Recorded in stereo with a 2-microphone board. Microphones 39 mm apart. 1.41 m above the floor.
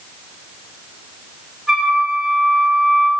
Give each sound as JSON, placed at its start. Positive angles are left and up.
{"t": 1.7, "sound": "a flute", "side_deg": -10, "distance_m": 1.7}